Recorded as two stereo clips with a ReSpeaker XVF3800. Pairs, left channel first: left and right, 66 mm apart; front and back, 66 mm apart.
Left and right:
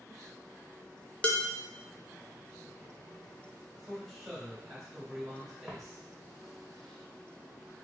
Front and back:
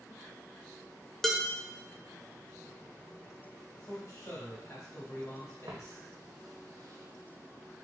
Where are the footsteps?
165° right, 1.3 m; by 7.7 s 110° left, 0.5 m.